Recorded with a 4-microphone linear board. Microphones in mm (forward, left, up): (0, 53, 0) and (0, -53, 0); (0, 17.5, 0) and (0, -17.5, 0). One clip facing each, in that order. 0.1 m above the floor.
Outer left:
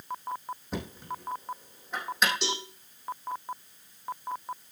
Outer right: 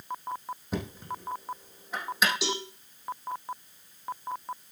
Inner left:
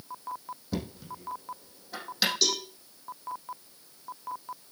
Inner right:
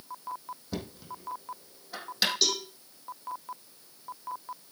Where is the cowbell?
5° right (ahead or behind), 4.5 m.